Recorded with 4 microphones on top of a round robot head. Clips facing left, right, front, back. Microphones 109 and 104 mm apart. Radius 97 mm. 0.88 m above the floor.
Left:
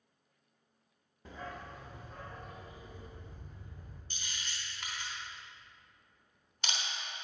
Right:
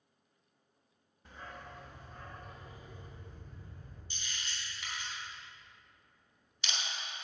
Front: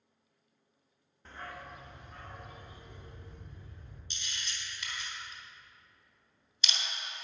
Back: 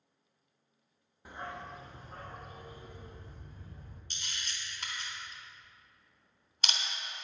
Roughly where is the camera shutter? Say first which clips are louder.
Even, even; behind left.